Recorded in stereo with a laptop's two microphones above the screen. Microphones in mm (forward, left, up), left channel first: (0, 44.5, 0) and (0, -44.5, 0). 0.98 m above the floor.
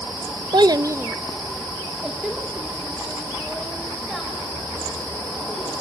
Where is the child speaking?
55° right (ahead or behind), 0.6 m; by 5.8 s centre (ahead or behind), 6 m.